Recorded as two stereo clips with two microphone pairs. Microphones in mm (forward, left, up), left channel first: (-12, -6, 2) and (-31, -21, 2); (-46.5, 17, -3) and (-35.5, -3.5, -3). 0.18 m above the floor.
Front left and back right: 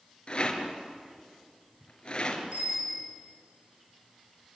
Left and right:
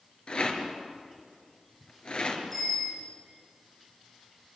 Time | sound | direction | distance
0.3 | a rattle | 85° left | 3.5 m
2.5 | a bicycle bell | 175° right | 8.5 m